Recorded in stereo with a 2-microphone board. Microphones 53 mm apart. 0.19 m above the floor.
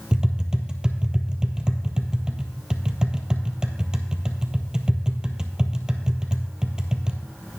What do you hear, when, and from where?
0.1 s tapping: 15° right (ahead or behind), 1.2 m